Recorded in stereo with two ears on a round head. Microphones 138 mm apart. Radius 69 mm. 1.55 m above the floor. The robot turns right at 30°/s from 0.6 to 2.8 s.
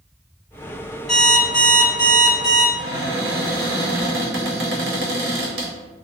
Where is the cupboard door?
75° right (ahead or behind), 0.8 m.